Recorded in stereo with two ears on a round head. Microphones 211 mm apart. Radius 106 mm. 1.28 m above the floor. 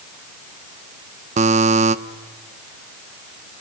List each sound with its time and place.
1.4 s a buzzer: 30° right (ahead or behind), 0.8 m